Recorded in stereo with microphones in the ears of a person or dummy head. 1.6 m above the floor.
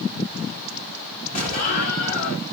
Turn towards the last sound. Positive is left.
turn(degrees=40)  # may be behind; listen again after turning